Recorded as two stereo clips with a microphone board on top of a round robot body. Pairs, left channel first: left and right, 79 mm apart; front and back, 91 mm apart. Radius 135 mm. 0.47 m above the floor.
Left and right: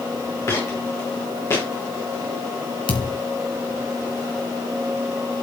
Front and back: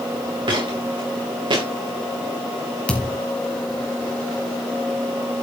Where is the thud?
80° left, 2.5 m.